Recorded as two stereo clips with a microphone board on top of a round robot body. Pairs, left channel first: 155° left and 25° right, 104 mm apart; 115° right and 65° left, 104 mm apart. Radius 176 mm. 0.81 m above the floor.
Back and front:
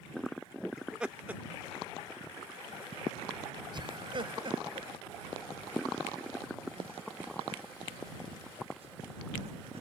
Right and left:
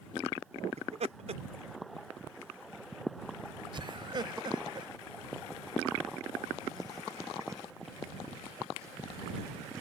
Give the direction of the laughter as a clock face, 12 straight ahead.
10 o'clock.